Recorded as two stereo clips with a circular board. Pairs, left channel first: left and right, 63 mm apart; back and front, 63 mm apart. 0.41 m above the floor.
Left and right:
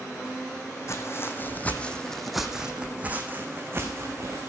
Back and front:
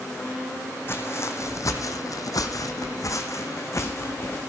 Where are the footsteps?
130° left, 1.2 m; by 4.4 s 135° right, 1.8 m.